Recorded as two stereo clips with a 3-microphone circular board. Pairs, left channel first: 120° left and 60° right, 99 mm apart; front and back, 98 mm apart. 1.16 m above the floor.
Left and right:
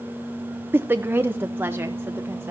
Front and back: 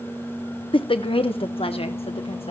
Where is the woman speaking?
5° left, 0.8 m; by 2.5 s 10° left, 1.7 m.